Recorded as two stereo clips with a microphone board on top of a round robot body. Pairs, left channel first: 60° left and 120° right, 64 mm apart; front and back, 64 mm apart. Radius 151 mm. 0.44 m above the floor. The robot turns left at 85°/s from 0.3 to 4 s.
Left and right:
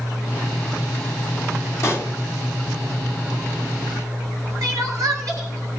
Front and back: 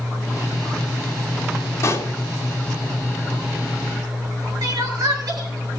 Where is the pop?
25° left, 2.0 m; by 2.1 s 5° left, 2.0 m.